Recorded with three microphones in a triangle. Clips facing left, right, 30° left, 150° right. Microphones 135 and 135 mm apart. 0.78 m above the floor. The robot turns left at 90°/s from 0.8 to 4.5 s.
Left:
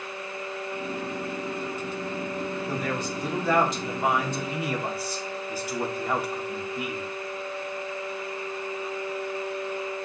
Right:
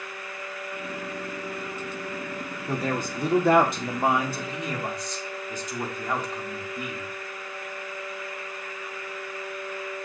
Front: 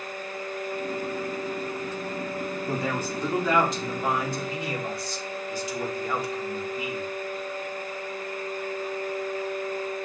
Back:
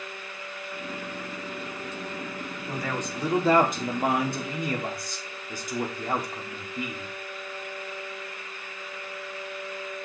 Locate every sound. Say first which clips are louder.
2.7 s a man speaking: right 1 dB, front 1 dB; 20° right, 2 m; by 7.1 s 175° left, 2 m